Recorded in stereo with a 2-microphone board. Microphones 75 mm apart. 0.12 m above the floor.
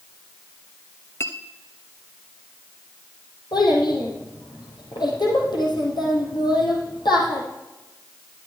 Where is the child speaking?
75° left (ahead or behind), 3.5 m.